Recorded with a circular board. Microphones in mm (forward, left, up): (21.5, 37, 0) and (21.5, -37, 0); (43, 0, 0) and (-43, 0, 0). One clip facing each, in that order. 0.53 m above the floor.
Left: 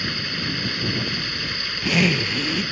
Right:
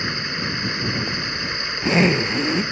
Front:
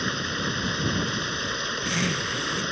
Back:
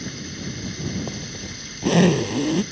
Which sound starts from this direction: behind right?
A zipper, at 1.1 s.